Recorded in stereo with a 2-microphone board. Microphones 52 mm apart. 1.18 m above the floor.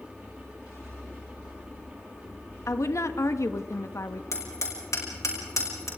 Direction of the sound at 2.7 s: 70° left (ahead or behind).